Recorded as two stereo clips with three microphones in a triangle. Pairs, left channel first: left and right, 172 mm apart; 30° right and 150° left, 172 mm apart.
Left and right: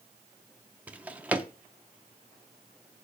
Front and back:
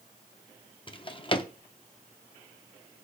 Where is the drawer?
15° right, 0.6 m.